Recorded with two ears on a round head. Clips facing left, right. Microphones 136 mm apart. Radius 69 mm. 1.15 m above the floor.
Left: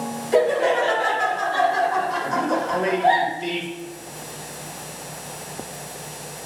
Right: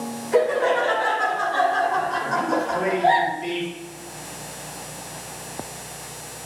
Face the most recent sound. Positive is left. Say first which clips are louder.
# left 1 dB
turn(degrees=40)  # may be behind; listen again after turning